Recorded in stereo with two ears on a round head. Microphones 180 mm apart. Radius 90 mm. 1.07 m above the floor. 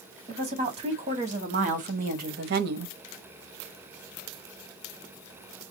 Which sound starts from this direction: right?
A woman speaking, at 0.3 s.